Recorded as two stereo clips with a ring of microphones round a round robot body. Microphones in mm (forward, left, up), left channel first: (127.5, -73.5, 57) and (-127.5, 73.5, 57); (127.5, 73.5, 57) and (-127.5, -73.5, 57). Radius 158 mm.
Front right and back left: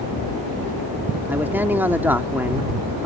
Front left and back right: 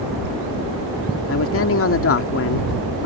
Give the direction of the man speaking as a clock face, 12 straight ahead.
10 o'clock.